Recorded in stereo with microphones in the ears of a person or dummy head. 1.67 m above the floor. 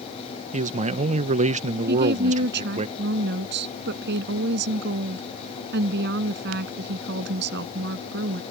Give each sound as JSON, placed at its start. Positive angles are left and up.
{"t": 0.5, "sound": "a man speaking", "side_deg": -30}
{"t": 1.9, "sound": "a woman speaking", "side_deg": -70}